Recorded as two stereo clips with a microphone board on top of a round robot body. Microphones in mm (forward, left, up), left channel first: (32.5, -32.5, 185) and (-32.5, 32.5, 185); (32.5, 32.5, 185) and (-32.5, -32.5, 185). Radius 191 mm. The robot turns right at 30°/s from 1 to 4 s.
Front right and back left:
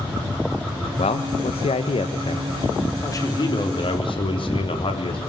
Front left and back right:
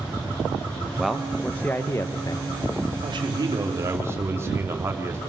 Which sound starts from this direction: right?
A man speaking, at 3.0 s.